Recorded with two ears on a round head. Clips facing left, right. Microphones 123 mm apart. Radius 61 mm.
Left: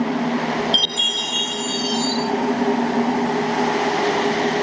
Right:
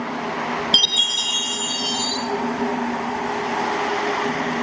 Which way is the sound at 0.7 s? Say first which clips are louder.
Left 2 dB; 20° right (ahead or behind).